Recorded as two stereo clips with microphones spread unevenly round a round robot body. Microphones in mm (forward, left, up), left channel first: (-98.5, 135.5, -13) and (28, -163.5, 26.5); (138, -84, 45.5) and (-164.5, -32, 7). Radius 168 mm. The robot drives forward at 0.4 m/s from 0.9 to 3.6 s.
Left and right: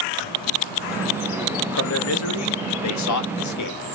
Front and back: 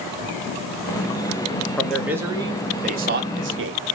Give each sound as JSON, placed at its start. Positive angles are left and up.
{"t": 1.8, "sound": "a man speaking", "azimuth_deg": 80, "distance_m": 0.9}